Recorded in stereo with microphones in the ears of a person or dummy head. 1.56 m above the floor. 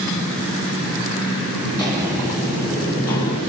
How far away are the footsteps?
About 2.0 m.